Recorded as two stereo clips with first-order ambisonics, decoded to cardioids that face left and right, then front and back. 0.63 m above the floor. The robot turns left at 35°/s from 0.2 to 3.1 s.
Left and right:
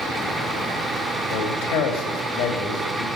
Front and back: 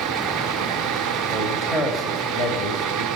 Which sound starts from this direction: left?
A man speaking, at 1.3 s.